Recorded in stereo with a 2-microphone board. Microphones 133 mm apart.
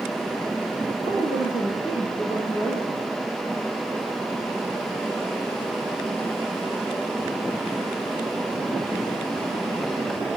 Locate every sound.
1.0 s a woman speaking: 50° left (ahead or behind), 10 m; by 3.1 s 40° left (ahead or behind), 10.5 m